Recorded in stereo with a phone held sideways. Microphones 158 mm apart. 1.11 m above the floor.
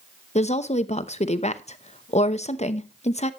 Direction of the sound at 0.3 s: 45° left (ahead or behind).